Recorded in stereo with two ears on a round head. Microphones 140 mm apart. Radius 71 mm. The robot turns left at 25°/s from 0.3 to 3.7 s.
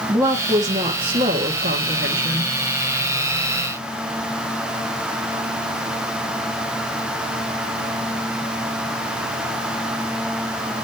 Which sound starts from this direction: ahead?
A woman speaking, at 0.1 s.